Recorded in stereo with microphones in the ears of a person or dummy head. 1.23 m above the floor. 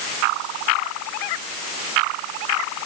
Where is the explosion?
No explosion in this recording.